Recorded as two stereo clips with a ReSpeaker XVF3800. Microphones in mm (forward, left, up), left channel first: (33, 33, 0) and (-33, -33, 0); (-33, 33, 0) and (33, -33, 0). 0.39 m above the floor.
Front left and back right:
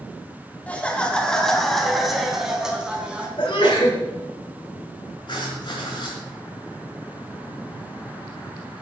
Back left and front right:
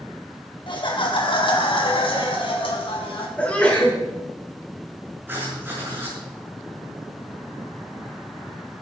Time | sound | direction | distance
0.7 | laughter | 115° left | 2.5 m
3.4 | a sneeze | 60° left | 5 m
5.3 | writing | 20° left | 6 m